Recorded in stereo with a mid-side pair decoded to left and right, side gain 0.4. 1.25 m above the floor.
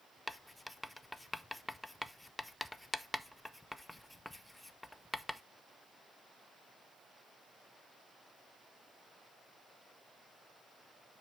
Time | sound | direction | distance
0.3 | writing | 10° left | 0.6 m